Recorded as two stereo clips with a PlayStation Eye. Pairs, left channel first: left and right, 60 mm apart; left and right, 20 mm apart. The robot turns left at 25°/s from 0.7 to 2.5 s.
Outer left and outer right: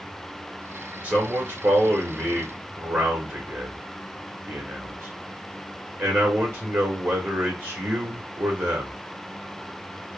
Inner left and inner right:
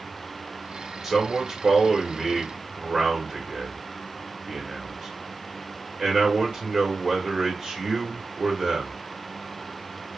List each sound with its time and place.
1.0 s a man speaking: 30° right, 1.3 m; by 9.0 s 70° right, 1.3 m